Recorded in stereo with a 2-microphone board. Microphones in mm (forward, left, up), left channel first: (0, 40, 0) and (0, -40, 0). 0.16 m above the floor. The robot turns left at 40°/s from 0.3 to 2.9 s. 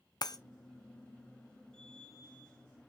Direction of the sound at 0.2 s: 55° left (ahead or behind).